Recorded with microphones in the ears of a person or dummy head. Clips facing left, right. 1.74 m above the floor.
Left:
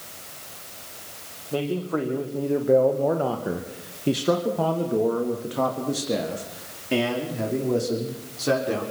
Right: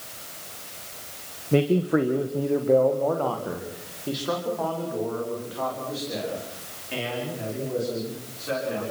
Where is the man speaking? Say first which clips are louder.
Right 5 dB; 25° right (ahead or behind), 2 m; by 8.8 s 70° left (ahead or behind), 6.5 m.